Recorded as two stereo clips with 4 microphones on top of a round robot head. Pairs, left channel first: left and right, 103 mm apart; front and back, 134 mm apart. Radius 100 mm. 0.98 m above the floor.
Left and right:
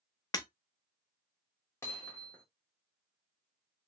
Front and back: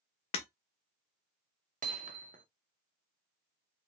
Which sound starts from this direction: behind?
Hammering, at 1.8 s.